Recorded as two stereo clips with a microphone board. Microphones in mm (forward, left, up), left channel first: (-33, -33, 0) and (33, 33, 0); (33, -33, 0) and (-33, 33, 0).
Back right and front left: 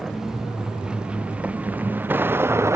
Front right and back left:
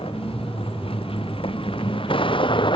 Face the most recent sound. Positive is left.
turn(degrees=-15)